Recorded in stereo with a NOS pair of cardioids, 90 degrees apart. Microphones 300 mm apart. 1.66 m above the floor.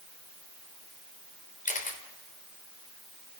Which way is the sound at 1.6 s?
25° left.